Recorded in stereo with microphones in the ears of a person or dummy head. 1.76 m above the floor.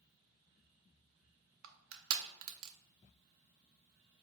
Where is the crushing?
75° right (ahead or behind), 0.6 m.